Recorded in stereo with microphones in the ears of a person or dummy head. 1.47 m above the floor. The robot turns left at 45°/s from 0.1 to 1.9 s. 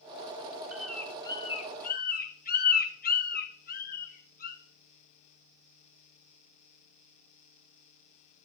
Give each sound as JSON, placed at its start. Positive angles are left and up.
{"t": 0.7, "sound": "a bird", "side_deg": -5, "distance_m": 0.9}